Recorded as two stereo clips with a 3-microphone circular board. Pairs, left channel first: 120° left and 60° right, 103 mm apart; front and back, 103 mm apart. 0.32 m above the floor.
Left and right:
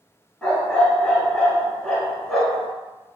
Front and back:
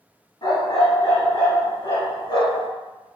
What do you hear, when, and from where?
0.4 s a dog barking: 35° left, 1.0 m